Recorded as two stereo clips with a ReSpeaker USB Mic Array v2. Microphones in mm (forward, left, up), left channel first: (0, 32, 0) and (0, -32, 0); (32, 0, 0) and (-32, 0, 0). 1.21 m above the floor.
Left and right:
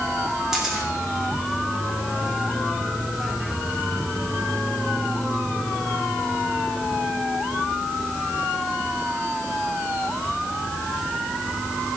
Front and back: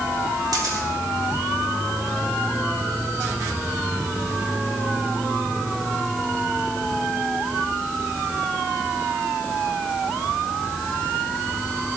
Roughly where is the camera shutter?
Behind.